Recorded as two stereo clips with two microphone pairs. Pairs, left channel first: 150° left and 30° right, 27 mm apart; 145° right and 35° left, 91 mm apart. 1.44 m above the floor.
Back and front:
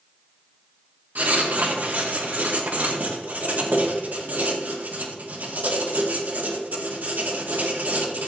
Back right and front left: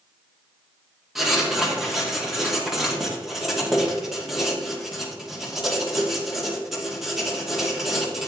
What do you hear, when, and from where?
1.1 s writing: 50° right, 2.5 m